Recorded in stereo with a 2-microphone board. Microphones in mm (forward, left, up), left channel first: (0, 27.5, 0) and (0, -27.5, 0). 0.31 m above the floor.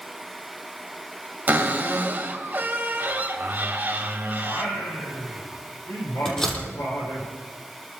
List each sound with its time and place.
1.5 s a cupboard door: 35° right (ahead or behind), 1.8 m
4.4 s singing: 65° left (ahead or behind), 5.5 m
6.2 s a door slam: 10° left (ahead or behind), 6.5 m